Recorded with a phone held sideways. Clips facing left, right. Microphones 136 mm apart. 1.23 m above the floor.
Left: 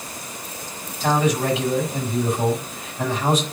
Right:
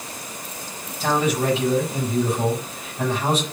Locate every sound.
1.0 s a man speaking: 30° right (ahead or behind), 6.5 m